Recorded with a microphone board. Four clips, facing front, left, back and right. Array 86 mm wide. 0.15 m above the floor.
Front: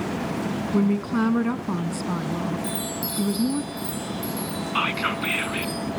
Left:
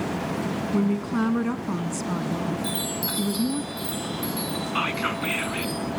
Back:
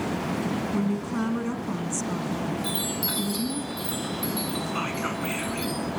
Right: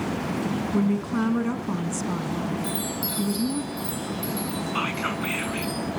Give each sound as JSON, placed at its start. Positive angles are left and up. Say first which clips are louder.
{"t": 0.7, "sound": "a woman speaking", "louder": "left 1 dB, front 9 dB", "azimuth_deg": 10, "distance_m": 1.1}
{"t": 2.6, "sound": "a chime", "louder": "even, front 1 dB", "azimuth_deg": 135, "distance_m": 7.5}
{"t": 4.8, "sound": "whispering", "louder": "left 2 dB, front 4 dB", "azimuth_deg": 15, "distance_m": 1.1}